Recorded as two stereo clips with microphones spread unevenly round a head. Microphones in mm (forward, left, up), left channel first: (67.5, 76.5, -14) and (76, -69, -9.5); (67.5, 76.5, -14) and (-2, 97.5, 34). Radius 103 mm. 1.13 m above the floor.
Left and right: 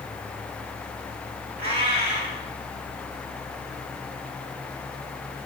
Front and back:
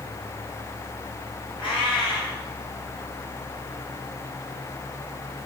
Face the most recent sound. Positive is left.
turn(degrees=-105)